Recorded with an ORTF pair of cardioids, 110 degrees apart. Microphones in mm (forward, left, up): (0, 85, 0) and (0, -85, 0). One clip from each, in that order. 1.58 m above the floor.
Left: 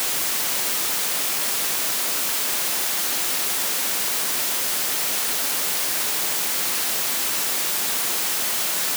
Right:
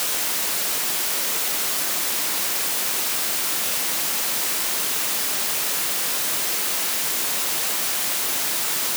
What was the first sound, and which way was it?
Only background noise.